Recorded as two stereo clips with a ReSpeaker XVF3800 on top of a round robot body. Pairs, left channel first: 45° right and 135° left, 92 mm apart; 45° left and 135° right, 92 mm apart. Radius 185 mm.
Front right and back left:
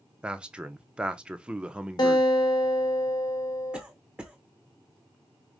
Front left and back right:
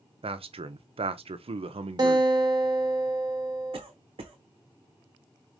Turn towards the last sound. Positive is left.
turn(degrees=-145)